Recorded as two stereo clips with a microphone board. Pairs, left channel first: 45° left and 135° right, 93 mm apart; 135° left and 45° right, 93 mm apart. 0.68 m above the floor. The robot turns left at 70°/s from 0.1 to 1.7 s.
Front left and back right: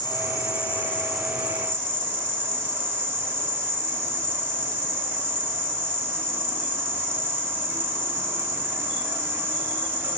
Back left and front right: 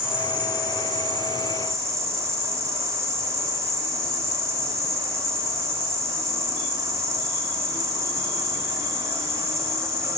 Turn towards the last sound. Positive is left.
turn(degrees=-80)